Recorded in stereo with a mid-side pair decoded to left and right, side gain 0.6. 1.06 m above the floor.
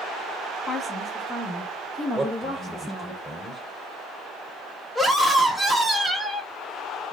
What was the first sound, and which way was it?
A woman speaking, 25° left.